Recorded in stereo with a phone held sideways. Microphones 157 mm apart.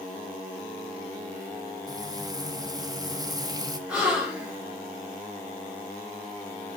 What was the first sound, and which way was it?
Frying, 25° right (ahead or behind).